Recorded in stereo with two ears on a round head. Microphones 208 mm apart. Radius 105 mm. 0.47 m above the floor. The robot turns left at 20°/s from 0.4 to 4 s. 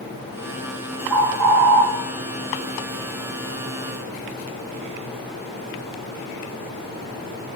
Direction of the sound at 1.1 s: 10° right (ahead or behind).